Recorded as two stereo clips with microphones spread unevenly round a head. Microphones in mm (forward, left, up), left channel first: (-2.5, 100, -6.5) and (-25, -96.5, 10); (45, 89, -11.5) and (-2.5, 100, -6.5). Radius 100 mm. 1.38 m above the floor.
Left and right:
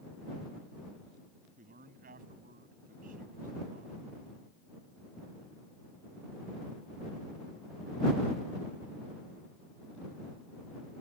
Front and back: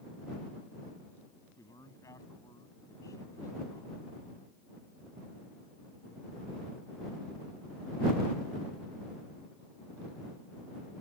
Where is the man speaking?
45° right.